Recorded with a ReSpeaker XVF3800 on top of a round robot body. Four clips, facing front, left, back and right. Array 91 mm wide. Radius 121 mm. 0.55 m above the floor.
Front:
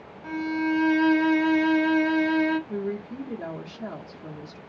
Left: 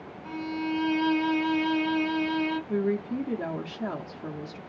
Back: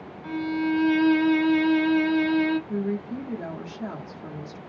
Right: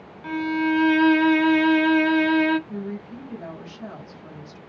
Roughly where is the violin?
Right.